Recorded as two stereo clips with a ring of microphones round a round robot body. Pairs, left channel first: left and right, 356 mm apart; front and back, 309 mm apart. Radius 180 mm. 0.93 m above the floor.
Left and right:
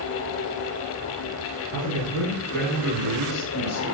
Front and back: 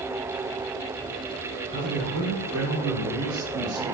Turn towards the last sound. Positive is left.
turn(degrees=-145)